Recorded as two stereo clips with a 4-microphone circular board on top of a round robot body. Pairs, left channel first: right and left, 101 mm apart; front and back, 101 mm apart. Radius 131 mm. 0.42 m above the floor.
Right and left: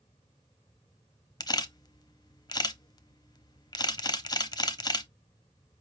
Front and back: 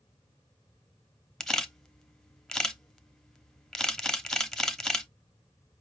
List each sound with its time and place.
1.4 s a camera shutter: 80° right, 0.9 m